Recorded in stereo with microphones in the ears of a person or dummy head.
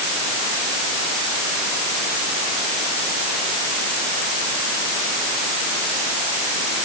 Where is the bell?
I don't hear a bell.